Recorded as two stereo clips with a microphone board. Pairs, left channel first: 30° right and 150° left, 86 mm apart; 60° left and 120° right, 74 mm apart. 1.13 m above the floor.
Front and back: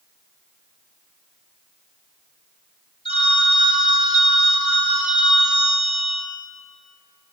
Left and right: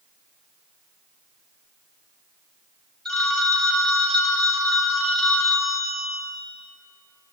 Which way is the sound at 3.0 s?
20° right.